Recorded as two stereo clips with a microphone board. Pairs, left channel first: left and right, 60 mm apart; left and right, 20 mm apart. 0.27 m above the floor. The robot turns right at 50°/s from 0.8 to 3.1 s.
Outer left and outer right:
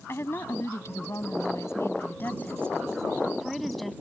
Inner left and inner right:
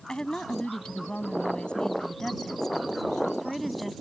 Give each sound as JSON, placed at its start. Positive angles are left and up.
{"t": 0.1, "sound": "a woman speaking", "azimuth_deg": 65}